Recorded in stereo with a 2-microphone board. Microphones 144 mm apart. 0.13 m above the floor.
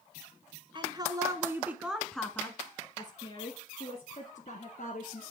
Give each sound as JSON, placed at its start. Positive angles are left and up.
{"t": 0.8, "sound": "a woman speaking", "side_deg": -35, "distance_m": 1.3}